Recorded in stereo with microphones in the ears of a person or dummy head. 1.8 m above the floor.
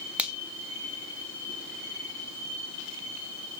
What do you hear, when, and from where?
0.2 s a finger snap: 5° right (ahead or behind), 0.7 m